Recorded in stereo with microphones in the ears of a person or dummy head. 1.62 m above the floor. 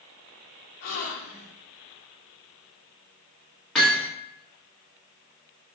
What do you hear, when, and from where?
0.8 s a gasp: 55° left (ahead or behind), 0.6 m
3.8 s hammering: 5° left (ahead or behind), 0.9 m